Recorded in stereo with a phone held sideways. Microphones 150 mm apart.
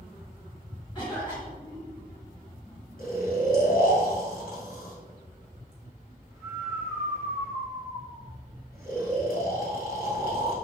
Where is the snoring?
65° left (ahead or behind), 2.5 m.